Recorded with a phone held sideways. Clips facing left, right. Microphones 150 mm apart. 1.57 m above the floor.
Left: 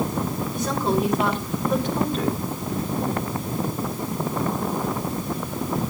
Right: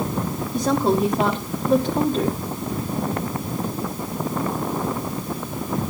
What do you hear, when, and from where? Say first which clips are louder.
0.5 s a woman speaking: right 5 dB; 35° right (ahead or behind), 1.4 m